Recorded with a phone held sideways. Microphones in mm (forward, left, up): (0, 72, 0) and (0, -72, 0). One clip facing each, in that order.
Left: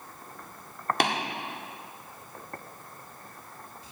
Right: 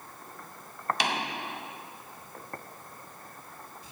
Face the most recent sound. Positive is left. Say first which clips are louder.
# left 5 dB
turn(degrees=55)  # may be behind; listen again after turning